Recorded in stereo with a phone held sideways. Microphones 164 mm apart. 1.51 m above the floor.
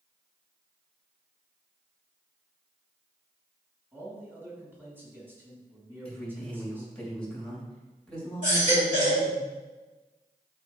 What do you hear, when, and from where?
3.9 s a man speaking: 15° right (ahead or behind), 3.5 m
6.0 s a man speaking: 5° left (ahead or behind), 3 m
8.4 s a baby crying: 50° right (ahead or behind), 4 m